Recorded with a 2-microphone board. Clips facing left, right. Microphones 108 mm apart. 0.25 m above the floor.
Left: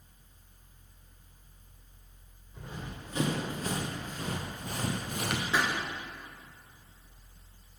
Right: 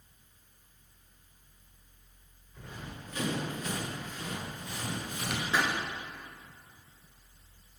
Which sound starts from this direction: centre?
A pop, at 5.5 s.